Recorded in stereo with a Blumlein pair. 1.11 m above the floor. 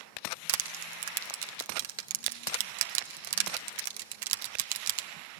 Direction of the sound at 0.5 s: 50° right.